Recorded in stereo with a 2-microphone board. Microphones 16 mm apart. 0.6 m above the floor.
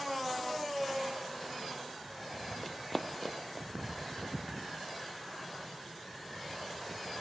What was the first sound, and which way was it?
Running footsteps, 5° left (ahead or behind).